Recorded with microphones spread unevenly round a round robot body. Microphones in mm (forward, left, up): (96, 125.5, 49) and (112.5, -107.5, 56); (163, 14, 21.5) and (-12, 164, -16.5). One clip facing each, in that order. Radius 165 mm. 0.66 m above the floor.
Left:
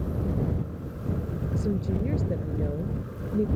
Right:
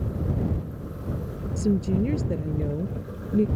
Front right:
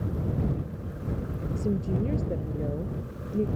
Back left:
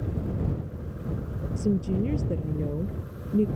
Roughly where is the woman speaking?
Behind right.